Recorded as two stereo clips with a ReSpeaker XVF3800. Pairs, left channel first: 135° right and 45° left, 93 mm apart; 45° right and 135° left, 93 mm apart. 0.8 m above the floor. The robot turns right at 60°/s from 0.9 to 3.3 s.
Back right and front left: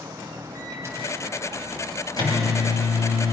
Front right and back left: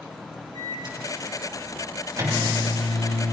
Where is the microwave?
105° left, 4.5 m; by 3.3 s 110° right, 4.5 m.